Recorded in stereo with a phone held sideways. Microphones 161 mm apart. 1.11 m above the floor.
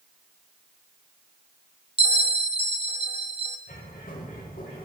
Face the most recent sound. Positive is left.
turn(degrees=65)  # may be behind; listen again after turning